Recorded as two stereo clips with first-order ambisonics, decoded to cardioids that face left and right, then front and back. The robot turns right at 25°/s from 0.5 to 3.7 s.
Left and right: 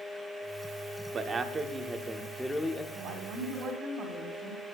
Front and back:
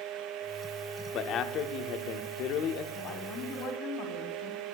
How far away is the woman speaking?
About 3.5 m.